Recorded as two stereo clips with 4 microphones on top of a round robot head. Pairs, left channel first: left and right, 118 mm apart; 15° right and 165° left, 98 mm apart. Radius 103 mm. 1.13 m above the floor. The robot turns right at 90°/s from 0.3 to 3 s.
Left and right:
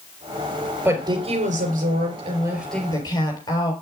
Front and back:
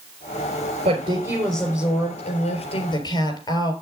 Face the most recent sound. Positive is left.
turn(degrees=25)